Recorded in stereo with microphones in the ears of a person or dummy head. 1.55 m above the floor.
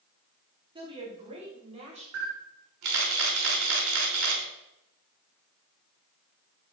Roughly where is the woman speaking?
Right.